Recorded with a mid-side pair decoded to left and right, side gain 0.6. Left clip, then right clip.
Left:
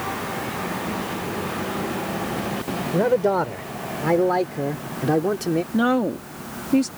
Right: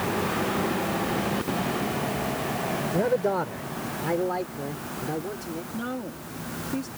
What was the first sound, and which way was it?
A man speaking, 25° left.